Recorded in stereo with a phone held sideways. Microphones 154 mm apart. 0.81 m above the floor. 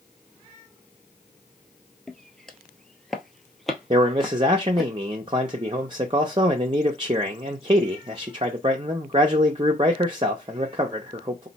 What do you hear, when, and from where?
2.1 s footsteps: 5° left (ahead or behind), 0.9 m; by 4.9 s centre (ahead or behind), 1.7 m
3.9 s a man speaking: 35° right (ahead or behind), 0.6 m